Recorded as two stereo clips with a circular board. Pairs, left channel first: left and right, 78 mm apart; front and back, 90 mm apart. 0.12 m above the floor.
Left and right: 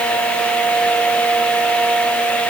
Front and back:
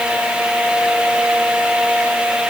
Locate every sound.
Only background noise.